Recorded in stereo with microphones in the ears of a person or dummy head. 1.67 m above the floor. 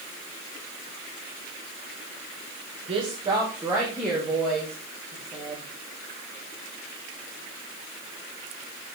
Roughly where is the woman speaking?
Right.